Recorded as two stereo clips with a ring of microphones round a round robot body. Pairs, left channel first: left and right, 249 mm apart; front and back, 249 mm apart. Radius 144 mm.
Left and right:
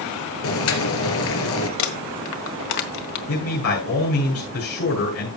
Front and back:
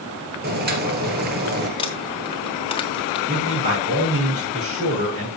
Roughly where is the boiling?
Behind left.